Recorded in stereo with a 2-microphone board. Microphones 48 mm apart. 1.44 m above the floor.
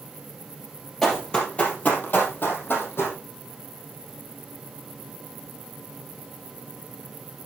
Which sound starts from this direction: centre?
Running footsteps, at 1.0 s.